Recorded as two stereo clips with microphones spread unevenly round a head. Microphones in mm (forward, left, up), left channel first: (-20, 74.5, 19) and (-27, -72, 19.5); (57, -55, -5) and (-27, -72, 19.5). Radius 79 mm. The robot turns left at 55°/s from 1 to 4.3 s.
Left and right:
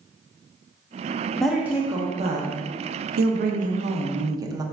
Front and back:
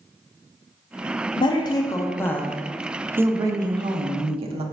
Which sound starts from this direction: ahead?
A woman speaking, at 1.4 s.